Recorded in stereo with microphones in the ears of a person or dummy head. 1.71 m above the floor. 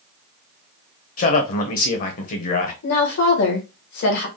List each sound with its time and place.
1.2 s a man speaking: 45° left (ahead or behind), 1.0 m
2.8 s a woman speaking: 60° left (ahead or behind), 1.3 m